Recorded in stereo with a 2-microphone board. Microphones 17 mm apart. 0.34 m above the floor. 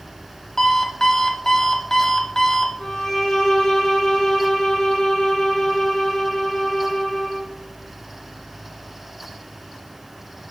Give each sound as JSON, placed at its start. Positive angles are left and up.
{"t": 0.6, "sound": "an alarm clock", "side_deg": 35, "distance_m": 0.8}
{"t": 2.8, "sound": "a violin", "side_deg": 50, "distance_m": 2.0}